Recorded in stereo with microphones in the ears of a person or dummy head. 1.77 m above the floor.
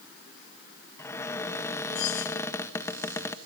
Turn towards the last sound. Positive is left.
turn(degrees=25)  # may be behind; listen again after turning